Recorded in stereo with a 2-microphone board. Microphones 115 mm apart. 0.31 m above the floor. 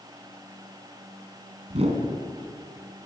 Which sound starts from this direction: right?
A whoosh, at 1.7 s.